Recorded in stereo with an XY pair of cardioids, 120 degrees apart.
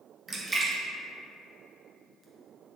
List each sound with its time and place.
0.3 s a splash: 20° right, 0.6 m